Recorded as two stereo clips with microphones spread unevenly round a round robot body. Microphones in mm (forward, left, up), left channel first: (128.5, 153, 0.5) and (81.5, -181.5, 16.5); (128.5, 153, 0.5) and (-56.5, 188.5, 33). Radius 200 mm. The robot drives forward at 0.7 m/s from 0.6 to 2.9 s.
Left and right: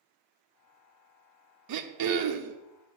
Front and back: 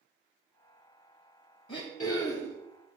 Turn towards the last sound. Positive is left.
turn(degrees=-130)